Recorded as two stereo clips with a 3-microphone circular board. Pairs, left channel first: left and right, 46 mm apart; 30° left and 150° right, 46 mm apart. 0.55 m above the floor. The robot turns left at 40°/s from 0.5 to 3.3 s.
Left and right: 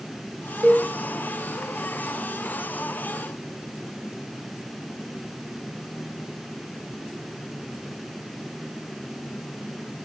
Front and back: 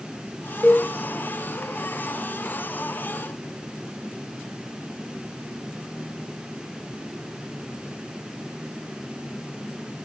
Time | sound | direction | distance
0.6 | a cowbell | 50° right | 2 m